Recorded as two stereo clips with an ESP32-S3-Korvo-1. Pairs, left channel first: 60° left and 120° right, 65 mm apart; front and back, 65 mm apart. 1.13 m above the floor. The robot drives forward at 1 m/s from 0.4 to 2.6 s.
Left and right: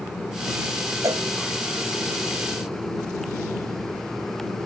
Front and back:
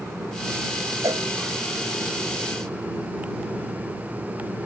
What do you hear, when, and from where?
1.0 s a cowbell: 150° right